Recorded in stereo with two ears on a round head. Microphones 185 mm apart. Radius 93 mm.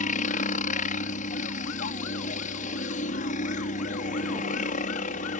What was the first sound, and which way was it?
A helicopter, 40° left (ahead or behind).